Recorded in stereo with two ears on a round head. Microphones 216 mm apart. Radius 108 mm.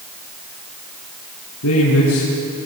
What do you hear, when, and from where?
1.6 s a man speaking: 65° left (ahead or behind), 5.5 m